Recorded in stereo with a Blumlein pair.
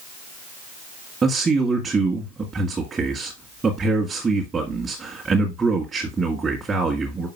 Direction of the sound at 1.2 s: 20° right.